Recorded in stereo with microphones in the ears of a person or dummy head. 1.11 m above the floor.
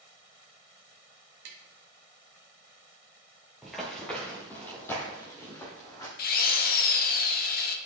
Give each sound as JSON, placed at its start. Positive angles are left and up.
{"t": 1.4, "sound": "tapping", "side_deg": -55, "distance_m": 0.9}
{"t": 3.6, "sound": "running footsteps", "side_deg": 0, "distance_m": 1.1}
{"t": 6.2, "sound": "a drill", "side_deg": 45, "distance_m": 1.0}